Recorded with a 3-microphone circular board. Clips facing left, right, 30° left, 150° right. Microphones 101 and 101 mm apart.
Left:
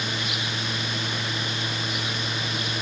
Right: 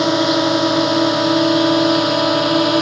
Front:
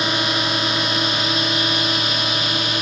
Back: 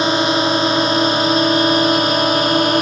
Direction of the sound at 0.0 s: 90° right.